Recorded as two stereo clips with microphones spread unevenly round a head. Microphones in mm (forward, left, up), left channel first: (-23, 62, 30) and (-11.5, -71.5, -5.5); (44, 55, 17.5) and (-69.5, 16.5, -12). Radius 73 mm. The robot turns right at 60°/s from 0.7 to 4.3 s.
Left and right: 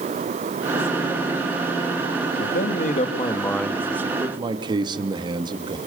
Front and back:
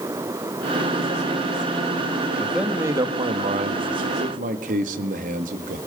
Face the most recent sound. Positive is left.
turn(degrees=-140)